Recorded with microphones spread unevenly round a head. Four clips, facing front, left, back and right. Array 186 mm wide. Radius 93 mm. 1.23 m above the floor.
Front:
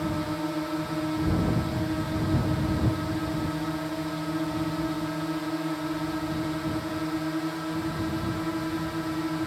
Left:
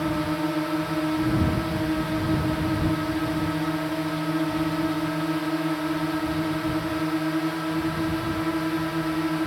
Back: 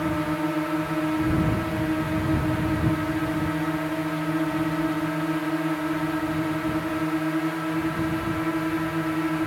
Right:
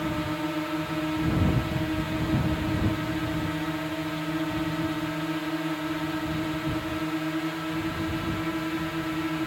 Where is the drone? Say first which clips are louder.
Left 4 dB, back 4 dB; 140° left.